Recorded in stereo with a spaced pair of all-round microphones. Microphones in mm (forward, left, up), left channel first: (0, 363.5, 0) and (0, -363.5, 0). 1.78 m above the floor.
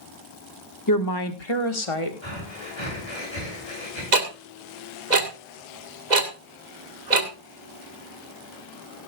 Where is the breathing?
40° left (ahead or behind), 7.5 m.